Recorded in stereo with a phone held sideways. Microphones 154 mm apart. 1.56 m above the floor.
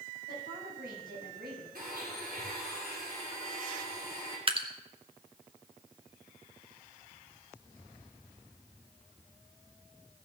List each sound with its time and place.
0.3 s a woman speaking: 75° right (ahead or behind), 8 m
1.8 s a blender: 75° right (ahead or behind), 5.5 m
4.5 s dripping: 35° right (ahead or behind), 1.1 m